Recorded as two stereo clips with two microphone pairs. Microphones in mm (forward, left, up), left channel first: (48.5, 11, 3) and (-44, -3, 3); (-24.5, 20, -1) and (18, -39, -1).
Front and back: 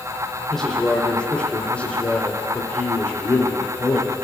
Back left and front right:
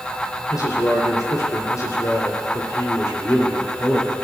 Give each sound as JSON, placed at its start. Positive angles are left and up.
{"t": 0.5, "sound": "a man speaking", "azimuth_deg": 95, "distance_m": 5.0}